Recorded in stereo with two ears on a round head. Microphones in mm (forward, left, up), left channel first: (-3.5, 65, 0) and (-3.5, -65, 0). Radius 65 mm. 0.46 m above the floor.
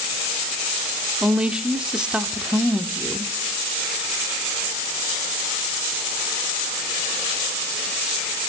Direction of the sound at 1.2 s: 5° right (ahead or behind).